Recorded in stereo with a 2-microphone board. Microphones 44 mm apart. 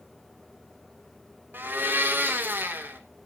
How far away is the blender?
About 1.7 m.